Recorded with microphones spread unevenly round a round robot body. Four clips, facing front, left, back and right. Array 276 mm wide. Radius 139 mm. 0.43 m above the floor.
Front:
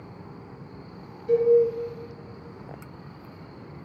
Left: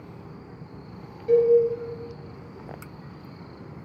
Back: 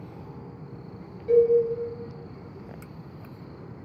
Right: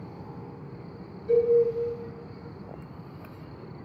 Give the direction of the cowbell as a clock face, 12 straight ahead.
8 o'clock.